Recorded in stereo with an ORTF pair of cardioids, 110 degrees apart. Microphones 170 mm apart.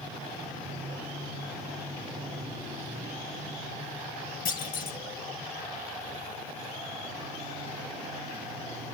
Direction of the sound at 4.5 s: 60° left.